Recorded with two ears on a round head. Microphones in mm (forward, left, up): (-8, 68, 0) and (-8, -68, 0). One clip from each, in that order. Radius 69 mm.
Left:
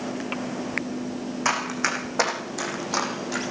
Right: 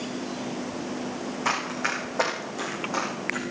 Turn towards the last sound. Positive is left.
turn(degrees=65)  # may be behind; listen again after turning